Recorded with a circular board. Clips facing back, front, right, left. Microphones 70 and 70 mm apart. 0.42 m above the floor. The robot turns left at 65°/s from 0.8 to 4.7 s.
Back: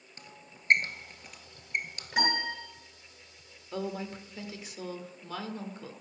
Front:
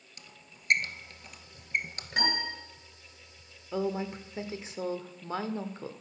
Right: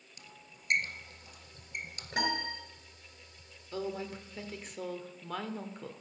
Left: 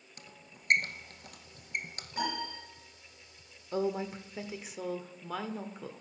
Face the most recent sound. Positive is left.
turn(degrees=5)